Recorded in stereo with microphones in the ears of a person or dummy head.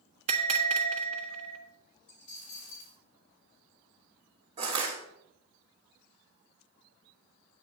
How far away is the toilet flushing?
I don't hear a toilet flushing.